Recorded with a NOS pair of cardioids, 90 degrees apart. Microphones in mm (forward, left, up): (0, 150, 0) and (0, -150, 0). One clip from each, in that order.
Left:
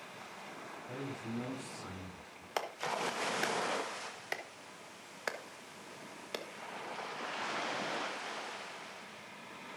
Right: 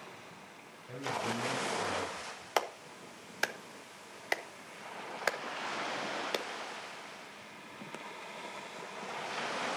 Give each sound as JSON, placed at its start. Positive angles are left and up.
{"t": 0.9, "sound": "a man speaking", "azimuth_deg": 10, "distance_m": 4.5}
{"t": 2.6, "sound": "a clap", "azimuth_deg": -30, "distance_m": 1.1}